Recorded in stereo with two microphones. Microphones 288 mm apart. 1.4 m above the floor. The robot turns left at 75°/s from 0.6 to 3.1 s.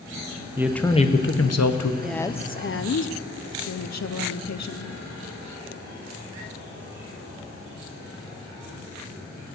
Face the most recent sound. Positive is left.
turn(degrees=105)